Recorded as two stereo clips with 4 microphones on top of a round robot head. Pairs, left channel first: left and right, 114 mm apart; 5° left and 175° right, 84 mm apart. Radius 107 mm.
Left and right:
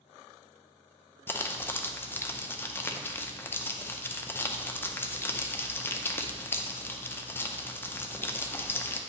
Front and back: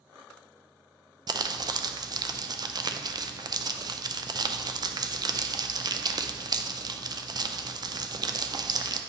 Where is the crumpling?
160° left, 0.5 m.